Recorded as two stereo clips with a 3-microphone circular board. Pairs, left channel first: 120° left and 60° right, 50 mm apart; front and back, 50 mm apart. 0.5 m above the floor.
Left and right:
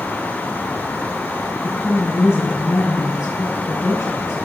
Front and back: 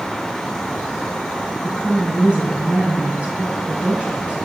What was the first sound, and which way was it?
A woman speaking, 115° left.